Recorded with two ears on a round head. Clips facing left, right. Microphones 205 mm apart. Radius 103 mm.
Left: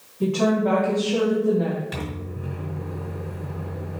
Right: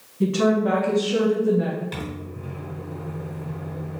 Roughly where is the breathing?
No breathing in this recording.